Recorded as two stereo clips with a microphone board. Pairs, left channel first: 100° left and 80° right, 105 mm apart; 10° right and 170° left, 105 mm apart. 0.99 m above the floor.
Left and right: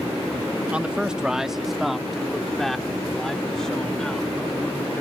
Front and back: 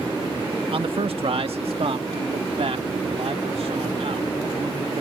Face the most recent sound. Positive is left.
turn(degrees=180)